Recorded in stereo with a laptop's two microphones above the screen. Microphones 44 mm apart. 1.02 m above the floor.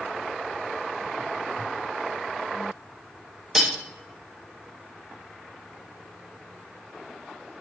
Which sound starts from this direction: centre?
Cutlery clinking, at 3.5 s.